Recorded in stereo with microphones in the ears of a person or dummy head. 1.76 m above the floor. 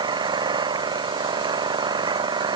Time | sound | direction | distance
0.0 | an engine running | 30° right (ahead or behind) | ?